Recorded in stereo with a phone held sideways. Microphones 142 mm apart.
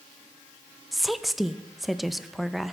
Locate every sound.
0.9 s a woman speaking: centre (ahead or behind), 0.7 m